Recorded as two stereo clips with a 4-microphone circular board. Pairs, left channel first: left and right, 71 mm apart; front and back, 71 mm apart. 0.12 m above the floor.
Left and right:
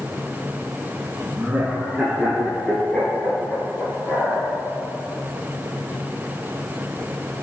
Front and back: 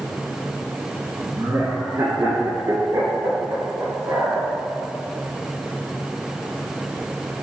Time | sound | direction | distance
1.4 | laughter | 150° right | 1.5 m